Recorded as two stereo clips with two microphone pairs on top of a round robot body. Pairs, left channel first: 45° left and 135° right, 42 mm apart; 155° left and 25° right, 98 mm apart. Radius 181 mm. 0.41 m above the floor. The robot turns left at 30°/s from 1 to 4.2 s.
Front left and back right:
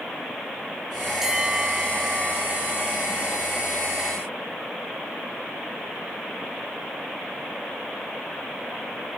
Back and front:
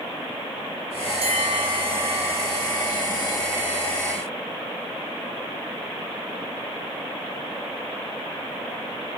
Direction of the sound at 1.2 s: 50° right.